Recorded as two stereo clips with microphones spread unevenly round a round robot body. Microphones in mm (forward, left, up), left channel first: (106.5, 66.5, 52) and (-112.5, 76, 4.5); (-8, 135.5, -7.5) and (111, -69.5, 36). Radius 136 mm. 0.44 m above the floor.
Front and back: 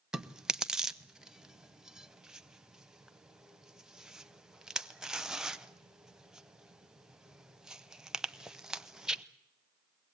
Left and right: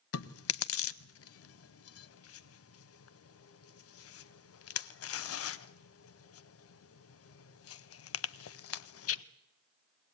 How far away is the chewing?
About 0.7 m.